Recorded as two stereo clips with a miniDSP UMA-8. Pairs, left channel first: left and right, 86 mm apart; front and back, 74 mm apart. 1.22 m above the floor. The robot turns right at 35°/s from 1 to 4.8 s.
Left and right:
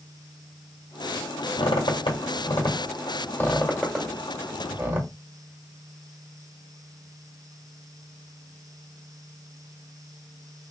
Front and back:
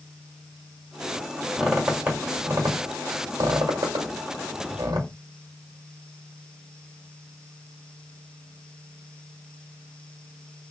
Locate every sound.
1.6 s a squeak: 90° left, 1.4 m; by 5.1 s 155° right, 1.4 m